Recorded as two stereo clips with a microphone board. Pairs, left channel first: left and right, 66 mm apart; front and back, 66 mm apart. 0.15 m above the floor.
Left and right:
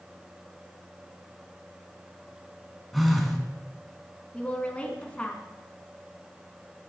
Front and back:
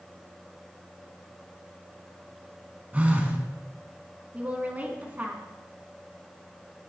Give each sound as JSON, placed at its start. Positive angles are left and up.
{"t": 2.9, "sound": "a phone buzzing", "azimuth_deg": 180, "distance_m": 1.6}
{"t": 4.3, "sound": "a woman speaking", "azimuth_deg": 140, "distance_m": 1.7}